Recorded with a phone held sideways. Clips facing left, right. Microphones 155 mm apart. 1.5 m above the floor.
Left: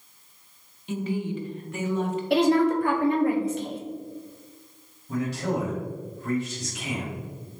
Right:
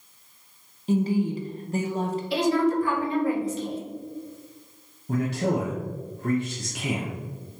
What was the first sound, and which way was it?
A woman speaking, 40° right (ahead or behind).